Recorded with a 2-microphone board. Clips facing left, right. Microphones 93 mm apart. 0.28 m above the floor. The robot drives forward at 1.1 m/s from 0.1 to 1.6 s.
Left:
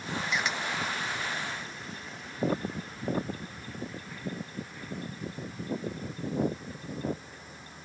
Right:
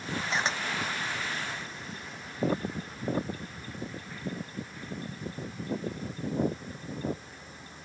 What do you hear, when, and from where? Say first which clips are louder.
0.3 s a camera shutter: right 2 dB; 30° right (ahead or behind)